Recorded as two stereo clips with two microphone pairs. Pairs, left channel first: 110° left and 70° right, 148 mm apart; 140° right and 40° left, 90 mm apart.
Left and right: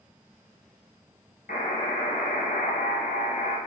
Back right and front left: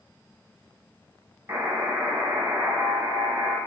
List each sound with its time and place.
1.5 s a buzzer: 95° left, 0.9 m